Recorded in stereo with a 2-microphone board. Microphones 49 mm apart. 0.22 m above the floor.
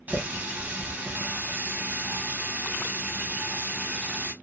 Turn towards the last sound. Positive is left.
turn(degrees=-35)  # may be behind; listen again after turning